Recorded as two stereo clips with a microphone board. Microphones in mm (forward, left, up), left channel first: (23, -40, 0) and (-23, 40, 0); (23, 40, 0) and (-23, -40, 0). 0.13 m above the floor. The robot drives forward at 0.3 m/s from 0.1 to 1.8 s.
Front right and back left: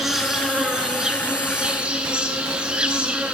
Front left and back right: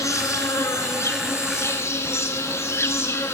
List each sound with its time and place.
0.0 s an insect: 35° left, 2 m; by 3.3 s 55° left, 2 m